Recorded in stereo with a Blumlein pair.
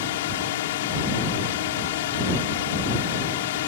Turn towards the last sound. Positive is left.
turn(degrees=55)